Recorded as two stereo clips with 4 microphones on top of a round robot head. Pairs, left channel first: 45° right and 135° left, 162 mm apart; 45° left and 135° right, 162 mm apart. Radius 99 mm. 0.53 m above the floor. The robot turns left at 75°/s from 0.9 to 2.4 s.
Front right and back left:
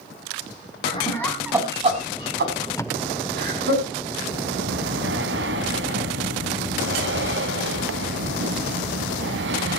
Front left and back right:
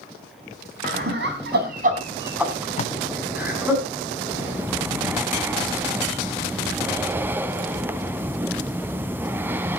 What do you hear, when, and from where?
0.8 s laughter: 100° right, 6 m; by 3.8 s 145° left, 6 m
2.8 s tape being pulled: 20° left, 0.8 m
4.3 s breathing: 150° left, 0.7 m